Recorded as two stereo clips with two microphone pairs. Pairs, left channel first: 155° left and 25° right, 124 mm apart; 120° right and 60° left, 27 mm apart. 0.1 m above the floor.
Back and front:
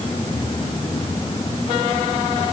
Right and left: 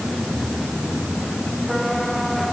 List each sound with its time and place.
Only background noise.